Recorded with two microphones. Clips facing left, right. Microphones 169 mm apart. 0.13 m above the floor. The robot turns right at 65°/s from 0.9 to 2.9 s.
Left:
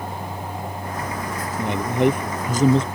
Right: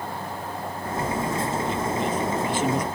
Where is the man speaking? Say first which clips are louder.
Left 5 dB; 70° left; by 2.8 s 155° left.